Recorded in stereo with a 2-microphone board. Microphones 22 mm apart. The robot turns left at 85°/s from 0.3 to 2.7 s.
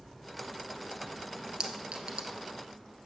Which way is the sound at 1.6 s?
40° right (ahead or behind).